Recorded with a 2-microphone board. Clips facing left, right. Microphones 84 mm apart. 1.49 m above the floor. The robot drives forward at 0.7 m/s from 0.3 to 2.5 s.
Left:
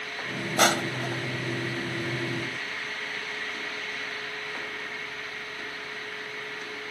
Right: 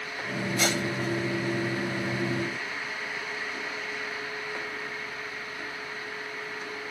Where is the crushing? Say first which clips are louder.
Left 6 dB; 60° left (ahead or behind); by 1.3 s 55° left (ahead or behind).